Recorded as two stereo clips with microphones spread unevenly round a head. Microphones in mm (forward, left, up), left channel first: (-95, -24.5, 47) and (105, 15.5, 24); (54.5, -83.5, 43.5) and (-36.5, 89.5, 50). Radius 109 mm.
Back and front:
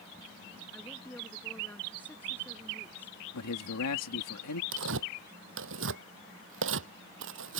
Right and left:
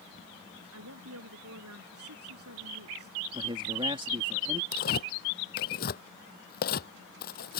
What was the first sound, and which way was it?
A woman speaking, 110° left.